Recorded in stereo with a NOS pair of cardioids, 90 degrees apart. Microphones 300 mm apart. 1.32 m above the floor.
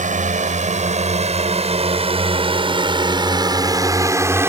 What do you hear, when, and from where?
0.0 s a drone: 25° right; by 4.5 s 10° right